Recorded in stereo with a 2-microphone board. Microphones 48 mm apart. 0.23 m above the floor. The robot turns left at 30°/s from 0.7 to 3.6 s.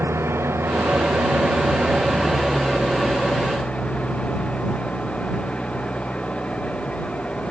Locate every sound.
0.0 s an engine running: 120° right; by 7.5 s 155° left